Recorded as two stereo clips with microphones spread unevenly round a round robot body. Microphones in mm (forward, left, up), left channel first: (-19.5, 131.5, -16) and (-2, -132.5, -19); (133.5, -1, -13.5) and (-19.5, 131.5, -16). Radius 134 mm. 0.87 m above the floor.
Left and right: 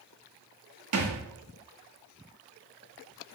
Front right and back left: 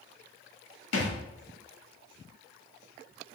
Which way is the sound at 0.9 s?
55° right.